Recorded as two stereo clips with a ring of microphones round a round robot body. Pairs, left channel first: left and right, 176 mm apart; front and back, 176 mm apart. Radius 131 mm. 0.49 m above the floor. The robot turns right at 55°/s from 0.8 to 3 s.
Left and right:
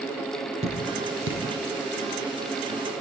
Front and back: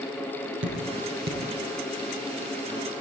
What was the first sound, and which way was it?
Dripping, 155° right.